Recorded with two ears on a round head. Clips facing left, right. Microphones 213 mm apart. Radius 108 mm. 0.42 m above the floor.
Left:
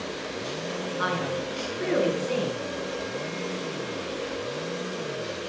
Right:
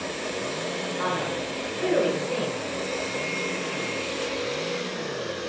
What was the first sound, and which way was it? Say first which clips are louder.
A man speaking: even; 20° left (ahead or behind).